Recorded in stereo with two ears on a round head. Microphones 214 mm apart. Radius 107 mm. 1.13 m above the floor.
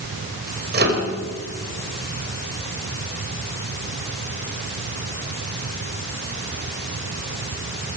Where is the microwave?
40° right (ahead or behind), 4.5 m.